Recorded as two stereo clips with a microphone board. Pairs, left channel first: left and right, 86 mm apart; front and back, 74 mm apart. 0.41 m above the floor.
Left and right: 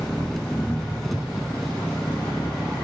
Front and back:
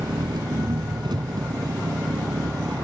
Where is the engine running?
175° left.